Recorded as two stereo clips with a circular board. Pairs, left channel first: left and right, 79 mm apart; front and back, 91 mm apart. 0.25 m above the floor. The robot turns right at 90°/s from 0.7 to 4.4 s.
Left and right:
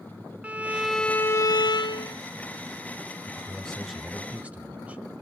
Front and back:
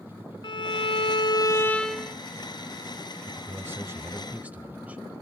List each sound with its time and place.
0.4 s a violin: 20° right, 0.8 m; by 2.2 s 110° left, 0.8 m
3.3 s a man speaking: 125° left, 1.1 m; by 5.0 s 130° right, 1.1 m